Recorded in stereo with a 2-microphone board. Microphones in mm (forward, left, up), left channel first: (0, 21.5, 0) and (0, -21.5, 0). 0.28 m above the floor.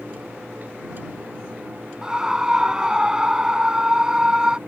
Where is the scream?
20° right (ahead or behind).